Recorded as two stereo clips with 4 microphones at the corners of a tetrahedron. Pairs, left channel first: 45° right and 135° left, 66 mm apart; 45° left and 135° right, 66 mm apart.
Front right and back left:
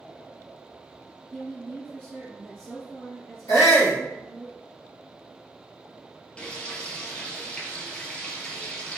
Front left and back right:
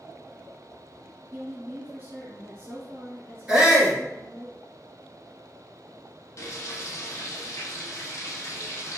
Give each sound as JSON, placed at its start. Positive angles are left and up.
{"t": 1.3, "sound": "a woman speaking", "azimuth_deg": -110, "distance_m": 1.8}
{"t": 3.5, "sound": "a shout", "azimuth_deg": -60, "distance_m": 1.7}
{"t": 6.4, "sound": "frying", "azimuth_deg": 25, "distance_m": 1.0}